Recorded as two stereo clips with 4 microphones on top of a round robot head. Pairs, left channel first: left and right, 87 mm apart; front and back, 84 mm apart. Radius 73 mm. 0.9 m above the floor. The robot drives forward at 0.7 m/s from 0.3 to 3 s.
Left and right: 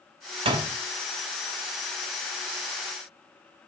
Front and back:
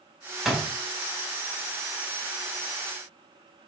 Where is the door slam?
95° right, 0.6 m; by 0.8 s 115° right, 0.6 m.